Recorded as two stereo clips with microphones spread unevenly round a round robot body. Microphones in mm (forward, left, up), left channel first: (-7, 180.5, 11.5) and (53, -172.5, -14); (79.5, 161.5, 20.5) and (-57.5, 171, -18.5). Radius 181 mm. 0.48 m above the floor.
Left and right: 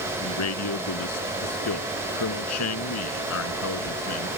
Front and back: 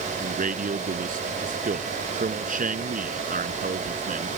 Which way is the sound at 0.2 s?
155° left.